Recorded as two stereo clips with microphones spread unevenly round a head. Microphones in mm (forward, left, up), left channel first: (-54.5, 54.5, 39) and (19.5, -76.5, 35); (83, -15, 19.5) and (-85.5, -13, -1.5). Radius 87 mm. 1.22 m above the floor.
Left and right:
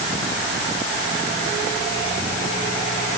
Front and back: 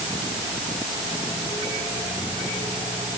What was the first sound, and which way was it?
Only background noise.